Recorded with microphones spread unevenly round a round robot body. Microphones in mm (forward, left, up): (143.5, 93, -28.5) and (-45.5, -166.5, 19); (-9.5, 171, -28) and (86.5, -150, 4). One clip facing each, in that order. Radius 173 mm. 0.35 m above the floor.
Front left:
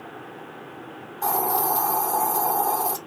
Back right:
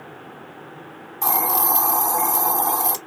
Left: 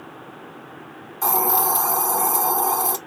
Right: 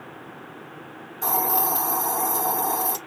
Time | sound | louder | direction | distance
1.2 | a hiss | even, left 3 dB | straight behind | 0.6 m